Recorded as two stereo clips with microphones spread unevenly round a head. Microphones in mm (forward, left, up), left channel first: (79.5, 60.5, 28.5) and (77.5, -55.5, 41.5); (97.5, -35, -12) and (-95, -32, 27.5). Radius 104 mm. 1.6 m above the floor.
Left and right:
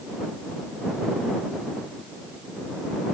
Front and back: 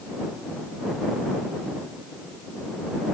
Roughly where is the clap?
I don't hear a clap.